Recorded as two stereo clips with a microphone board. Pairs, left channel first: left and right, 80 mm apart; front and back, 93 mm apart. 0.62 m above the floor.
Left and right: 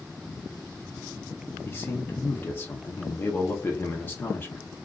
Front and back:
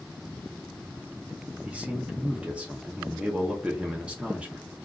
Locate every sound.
1.6 s a man speaking: 115° left, 0.6 m